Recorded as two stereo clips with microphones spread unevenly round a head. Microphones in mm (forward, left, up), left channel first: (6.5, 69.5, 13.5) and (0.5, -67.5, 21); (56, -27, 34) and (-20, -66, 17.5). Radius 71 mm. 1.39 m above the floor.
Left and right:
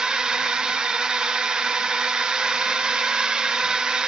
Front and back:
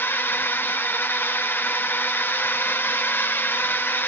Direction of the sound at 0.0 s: 10° right.